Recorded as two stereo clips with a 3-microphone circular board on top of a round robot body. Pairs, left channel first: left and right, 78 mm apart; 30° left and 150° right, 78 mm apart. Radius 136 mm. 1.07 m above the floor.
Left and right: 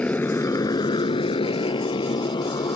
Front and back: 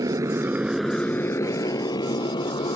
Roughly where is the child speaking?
I don't hear a child speaking.